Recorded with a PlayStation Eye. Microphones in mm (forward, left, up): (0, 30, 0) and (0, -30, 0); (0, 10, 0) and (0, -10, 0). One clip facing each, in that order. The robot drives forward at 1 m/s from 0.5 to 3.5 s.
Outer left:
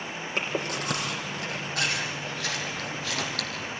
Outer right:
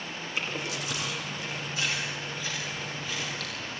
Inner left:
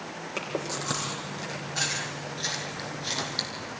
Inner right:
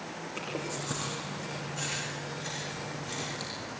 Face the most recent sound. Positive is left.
turn(degrees=75)  # may be behind; listen again after turning